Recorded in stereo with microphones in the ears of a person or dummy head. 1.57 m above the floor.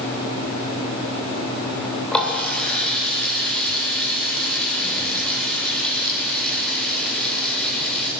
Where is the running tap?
15° left (ahead or behind), 3.5 m.